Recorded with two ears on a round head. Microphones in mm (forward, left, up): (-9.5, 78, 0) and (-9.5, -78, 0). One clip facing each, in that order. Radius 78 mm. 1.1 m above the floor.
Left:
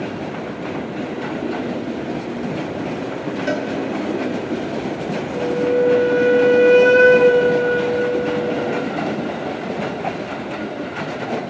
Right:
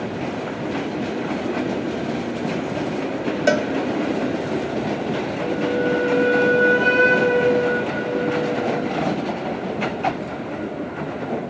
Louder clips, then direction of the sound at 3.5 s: Right 4 dB; 55° right (ahead or behind).